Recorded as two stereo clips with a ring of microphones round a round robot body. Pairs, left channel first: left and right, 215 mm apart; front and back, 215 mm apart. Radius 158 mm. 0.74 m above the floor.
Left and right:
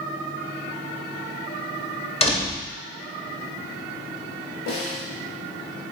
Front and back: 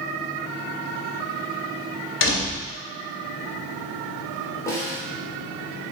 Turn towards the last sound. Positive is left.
turn(degrees=75)